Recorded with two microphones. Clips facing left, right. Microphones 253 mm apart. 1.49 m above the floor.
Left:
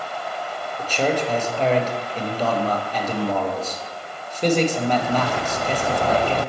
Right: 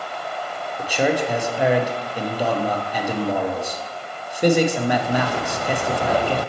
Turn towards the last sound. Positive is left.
turn(degrees=-10)  # may be behind; listen again after turning